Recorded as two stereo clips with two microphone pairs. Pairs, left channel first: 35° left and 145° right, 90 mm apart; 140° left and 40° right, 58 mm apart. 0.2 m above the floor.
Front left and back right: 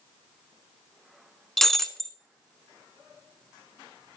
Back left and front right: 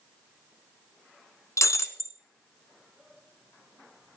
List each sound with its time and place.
1.6 s breaking glass: 120° left, 0.8 m